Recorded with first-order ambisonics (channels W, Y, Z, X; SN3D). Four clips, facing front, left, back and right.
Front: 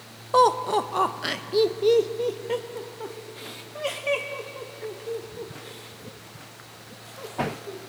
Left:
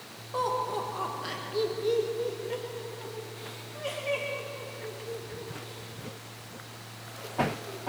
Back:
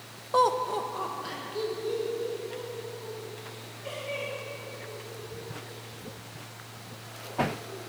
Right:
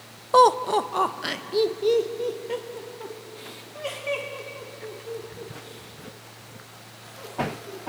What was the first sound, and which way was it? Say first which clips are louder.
Laughter: right 12 dB, front 5 dB; 70° right.